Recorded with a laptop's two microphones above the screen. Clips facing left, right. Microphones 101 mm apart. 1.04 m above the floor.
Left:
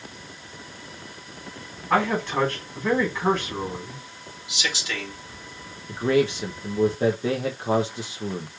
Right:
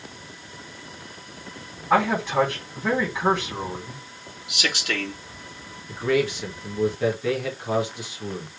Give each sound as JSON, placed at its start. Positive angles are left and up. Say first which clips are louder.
{"t": 1.9, "sound": "a man speaking", "louder": "right 2 dB", "side_deg": -10, "distance_m": 3.5}
{"t": 4.5, "sound": "a man speaking", "louder": "right 3 dB", "side_deg": -55, "distance_m": 3.0}
{"t": 5.9, "sound": "a man speaking", "louder": "left 2 dB", "side_deg": 30, "distance_m": 0.9}